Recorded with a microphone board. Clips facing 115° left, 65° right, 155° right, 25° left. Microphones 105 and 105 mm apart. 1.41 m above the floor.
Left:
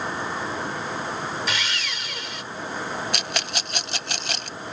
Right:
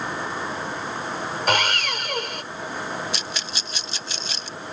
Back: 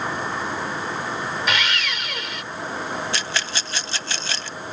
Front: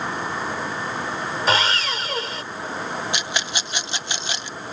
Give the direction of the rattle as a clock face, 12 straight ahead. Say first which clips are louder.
Left 3 dB, even; 9 o'clock.